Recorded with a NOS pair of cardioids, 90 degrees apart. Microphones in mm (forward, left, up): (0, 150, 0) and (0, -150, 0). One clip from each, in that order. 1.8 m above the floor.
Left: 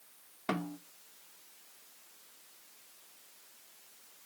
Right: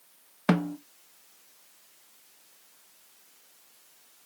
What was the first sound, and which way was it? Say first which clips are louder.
A snare drum: right 8 dB; 55° right.